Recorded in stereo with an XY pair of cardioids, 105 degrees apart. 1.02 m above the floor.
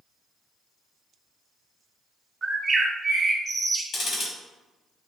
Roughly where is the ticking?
Ahead left.